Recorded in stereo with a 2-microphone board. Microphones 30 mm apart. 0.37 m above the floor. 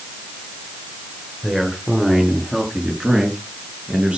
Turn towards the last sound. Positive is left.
turn(degrees=-35)  # may be behind; listen again after turning